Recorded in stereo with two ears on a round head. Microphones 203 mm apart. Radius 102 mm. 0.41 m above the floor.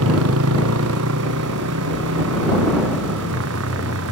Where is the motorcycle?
65° right (ahead or behind).